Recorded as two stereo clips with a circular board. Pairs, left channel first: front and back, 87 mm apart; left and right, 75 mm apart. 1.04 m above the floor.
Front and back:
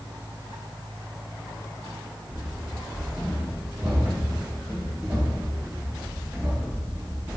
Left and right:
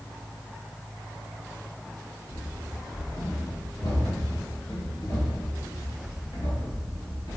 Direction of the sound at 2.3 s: 105° left.